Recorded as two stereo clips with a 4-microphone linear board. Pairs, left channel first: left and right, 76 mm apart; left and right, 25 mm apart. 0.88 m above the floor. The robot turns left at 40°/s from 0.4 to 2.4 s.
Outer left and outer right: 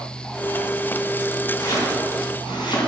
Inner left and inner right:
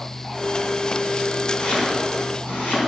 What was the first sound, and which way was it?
Chopping, 50° left (ahead or behind).